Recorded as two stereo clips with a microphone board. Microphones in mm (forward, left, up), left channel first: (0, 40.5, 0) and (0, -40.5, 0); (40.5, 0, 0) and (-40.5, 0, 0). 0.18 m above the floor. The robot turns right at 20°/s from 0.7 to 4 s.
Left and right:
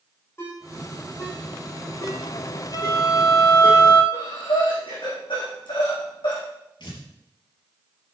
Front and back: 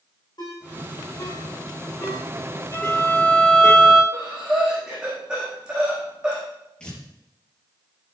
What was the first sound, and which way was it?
A ringtone, 30° left.